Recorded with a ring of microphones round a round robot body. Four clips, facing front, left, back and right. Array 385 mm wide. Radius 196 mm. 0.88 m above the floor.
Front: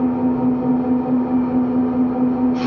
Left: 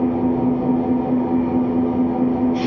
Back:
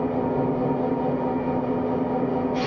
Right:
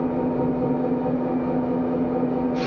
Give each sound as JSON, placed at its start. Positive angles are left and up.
{"t": 0.0, "sound": "an engine running", "azimuth_deg": 65, "distance_m": 3.0}